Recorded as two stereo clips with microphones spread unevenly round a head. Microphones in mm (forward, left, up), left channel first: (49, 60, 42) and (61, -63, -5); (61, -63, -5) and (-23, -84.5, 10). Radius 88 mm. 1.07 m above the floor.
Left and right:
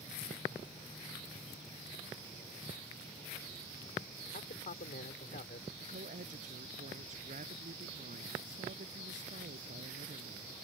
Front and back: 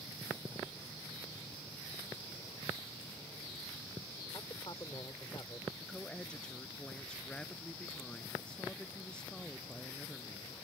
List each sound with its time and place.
4.3 s a man speaking: 80° left
5.8 s a woman speaking: 65° right